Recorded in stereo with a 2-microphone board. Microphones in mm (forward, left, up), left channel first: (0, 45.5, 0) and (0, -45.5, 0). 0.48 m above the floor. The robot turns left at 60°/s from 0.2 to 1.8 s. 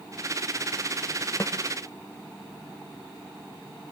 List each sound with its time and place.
1.4 s a snare drum: 25° left (ahead or behind), 1.0 m; by 1.6 s 35° left (ahead or behind), 1.0 m